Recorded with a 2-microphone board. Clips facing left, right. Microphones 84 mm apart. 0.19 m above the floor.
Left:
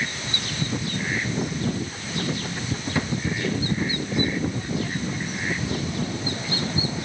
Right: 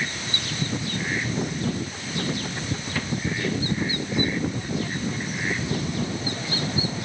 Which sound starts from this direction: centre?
A drawer, at 2.9 s.